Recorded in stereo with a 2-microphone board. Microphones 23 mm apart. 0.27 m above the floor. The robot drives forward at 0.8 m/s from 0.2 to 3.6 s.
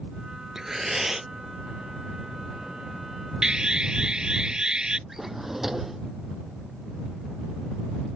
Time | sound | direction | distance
0.6 | breathing | 15° right (ahead or behind) | ?
3.4 | an alarm | 45° right (ahead or behind) | ?
5.1 | a drawer | 5° right (ahead or behind) | ?